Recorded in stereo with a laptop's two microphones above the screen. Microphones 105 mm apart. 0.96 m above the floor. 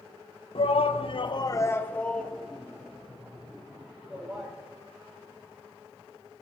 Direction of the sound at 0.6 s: 60° left (ahead or behind).